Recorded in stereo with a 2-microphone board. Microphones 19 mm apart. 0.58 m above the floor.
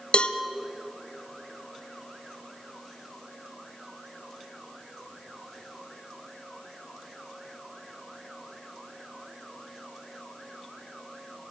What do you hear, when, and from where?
0.1 s a cowbell: 60° left (ahead or behind), 0.9 m